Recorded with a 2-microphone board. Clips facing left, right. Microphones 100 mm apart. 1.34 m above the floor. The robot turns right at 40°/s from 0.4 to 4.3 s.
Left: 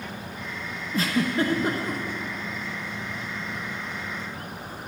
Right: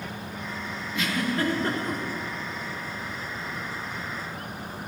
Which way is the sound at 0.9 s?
35° left (ahead or behind).